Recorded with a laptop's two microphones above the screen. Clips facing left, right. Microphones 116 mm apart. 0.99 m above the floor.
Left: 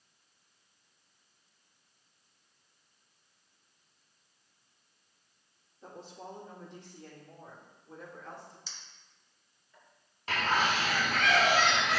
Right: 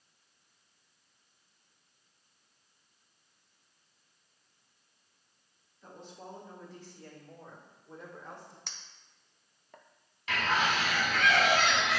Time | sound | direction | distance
5.8 | a woman speaking | 40° left (ahead or behind) | 3 m
8.7 | a clink | 65° right (ahead or behind) | 0.5 m
10.3 | a bird | 40° left (ahead or behind) | 1.4 m